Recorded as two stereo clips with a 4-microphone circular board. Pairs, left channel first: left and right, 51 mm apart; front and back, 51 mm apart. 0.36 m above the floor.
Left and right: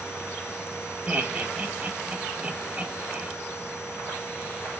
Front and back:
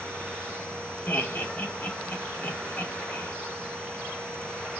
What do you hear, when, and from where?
1.1 s laughter: 35° right, 2 m